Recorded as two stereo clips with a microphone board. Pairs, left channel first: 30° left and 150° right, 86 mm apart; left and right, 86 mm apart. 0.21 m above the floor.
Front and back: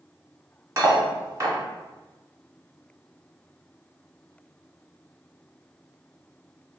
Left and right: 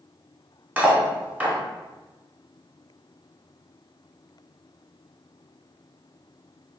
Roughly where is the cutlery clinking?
Behind right.